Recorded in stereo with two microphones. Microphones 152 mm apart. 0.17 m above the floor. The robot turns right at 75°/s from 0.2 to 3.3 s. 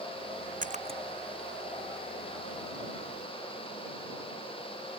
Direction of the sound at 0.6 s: 60° right (ahead or behind).